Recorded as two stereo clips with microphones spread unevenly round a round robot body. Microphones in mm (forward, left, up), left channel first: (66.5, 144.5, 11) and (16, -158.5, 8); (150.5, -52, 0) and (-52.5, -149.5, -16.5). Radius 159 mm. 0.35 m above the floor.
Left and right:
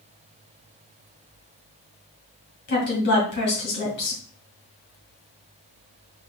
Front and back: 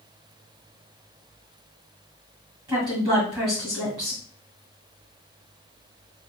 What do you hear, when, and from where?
2.7 s a woman speaking: 135° left, 2.5 m